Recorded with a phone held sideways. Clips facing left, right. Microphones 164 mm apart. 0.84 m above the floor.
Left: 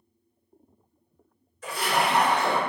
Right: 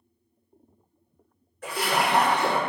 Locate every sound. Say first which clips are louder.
1.6 s a splash: even; 60° right (ahead or behind), 1.1 m